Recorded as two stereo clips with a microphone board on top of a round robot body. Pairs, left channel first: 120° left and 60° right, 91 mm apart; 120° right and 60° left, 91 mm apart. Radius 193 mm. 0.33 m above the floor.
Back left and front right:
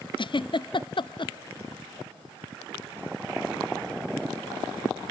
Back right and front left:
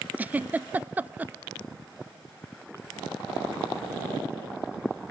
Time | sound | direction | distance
0.2 | a giggle | 130° left | 0.6 m